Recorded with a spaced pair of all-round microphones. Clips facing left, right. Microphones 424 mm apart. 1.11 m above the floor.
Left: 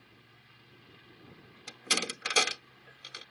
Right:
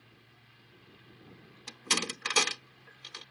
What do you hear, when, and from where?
1.7 s a door slam: 10° right (ahead or behind)